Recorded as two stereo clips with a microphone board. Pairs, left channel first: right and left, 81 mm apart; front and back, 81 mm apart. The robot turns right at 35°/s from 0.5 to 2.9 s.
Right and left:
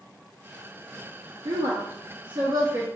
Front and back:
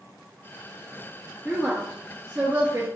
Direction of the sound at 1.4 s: 80° left.